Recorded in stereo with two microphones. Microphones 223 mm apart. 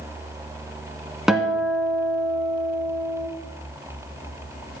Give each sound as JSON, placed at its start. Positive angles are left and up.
{"t": 1.3, "sound": "a guitar", "side_deg": 0, "distance_m": 1.3}